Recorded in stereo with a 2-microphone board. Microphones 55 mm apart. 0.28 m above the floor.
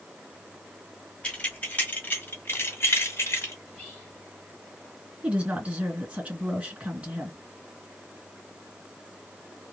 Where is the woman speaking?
20° right (ahead or behind), 2 m.